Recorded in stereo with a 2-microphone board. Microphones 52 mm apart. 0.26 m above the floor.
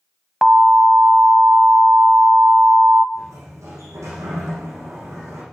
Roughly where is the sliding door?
Right.